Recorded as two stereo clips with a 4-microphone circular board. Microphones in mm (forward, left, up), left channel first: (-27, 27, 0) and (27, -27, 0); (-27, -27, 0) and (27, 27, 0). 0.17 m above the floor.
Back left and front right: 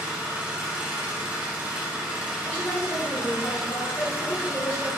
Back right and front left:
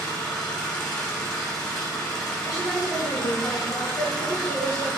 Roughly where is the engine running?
Right.